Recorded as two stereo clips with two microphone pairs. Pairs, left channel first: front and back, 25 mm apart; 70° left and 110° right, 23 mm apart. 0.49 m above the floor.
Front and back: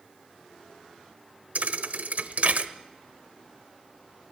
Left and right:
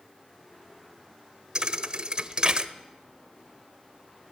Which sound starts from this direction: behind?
A thud, at 1.6 s.